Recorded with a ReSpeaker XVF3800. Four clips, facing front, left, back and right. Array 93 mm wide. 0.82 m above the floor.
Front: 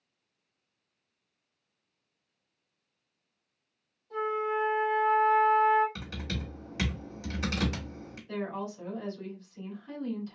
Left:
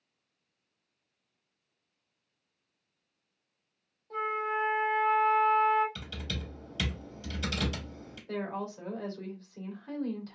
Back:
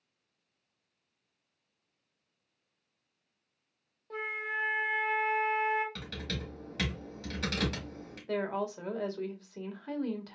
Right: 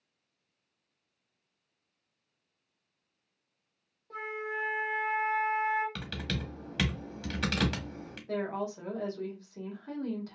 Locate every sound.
4.1 s a flute: 165° right, 1.8 m
6.0 s typing on a keyboard: 75° right, 1.6 m
8.3 s a woman speaking: 170° right, 1.6 m